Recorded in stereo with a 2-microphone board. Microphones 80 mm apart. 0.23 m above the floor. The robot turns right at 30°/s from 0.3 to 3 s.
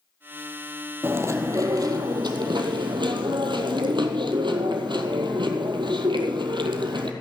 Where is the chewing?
150° right, 1.0 m; by 7.1 s 90° right, 1.0 m.